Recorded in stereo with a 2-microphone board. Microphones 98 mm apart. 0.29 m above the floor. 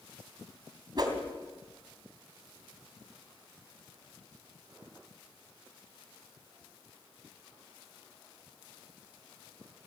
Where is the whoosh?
45° right (ahead or behind), 2.5 m.